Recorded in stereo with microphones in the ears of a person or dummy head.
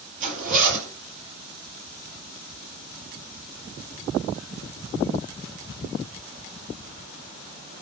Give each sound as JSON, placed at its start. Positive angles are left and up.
{"t": 0.2, "sound": "a zipper", "side_deg": -40, "distance_m": 9.5}